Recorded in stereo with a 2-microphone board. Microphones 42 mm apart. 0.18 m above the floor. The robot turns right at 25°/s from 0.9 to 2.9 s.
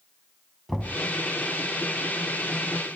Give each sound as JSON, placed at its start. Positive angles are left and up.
{"t": 0.7, "sound": "knocking", "side_deg": 5, "distance_m": 1.2}